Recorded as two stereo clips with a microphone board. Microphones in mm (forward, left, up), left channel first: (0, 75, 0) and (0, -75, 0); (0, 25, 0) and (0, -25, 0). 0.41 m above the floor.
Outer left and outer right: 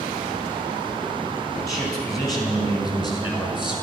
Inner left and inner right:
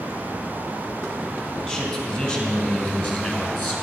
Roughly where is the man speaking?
Left.